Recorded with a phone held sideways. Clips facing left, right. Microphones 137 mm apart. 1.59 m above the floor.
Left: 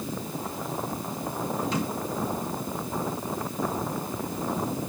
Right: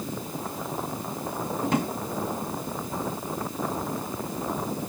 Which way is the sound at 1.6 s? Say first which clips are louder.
Right 5 dB; 55° right (ahead or behind).